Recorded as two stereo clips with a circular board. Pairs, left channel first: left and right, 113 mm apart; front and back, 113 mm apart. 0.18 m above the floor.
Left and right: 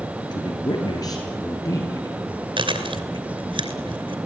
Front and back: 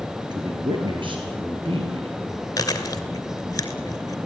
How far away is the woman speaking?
About 3.5 m.